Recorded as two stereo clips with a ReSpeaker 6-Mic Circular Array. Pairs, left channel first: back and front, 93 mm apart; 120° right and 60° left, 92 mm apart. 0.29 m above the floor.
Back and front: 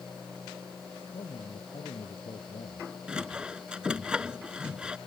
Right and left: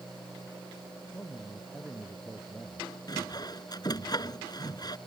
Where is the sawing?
80° right.